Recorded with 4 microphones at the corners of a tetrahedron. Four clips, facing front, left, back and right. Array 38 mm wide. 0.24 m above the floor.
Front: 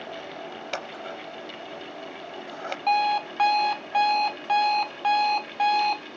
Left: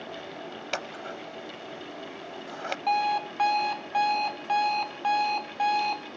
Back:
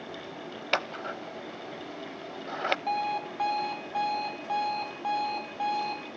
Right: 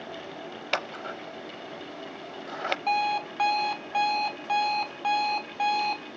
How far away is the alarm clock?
About 0.8 m.